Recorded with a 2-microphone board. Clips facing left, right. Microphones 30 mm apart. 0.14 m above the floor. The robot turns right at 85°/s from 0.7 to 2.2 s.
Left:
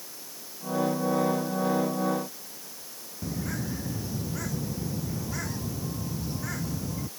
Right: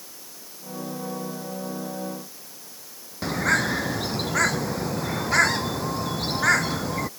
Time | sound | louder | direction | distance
3.2 | a bird | right 11 dB | 80° right | ?